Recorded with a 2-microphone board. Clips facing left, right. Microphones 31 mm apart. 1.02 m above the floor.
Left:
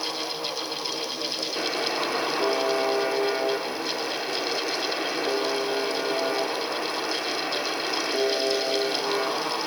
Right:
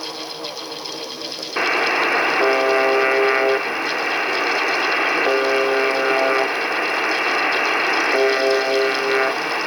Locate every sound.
1.6 s a buzzer: 70° right (ahead or behind), 1.4 m